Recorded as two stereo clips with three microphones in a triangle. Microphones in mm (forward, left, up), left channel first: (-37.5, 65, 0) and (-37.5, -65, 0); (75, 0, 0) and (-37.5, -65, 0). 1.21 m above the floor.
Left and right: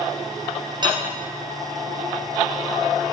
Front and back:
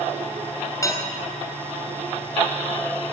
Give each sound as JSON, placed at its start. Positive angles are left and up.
{"t": 0.8, "sound": "dishes clattering", "azimuth_deg": -35, "distance_m": 4.0}